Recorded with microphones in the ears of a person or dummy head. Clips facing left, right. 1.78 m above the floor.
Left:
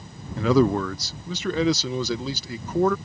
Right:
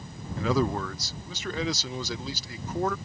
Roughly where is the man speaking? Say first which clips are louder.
Left 7 dB; left.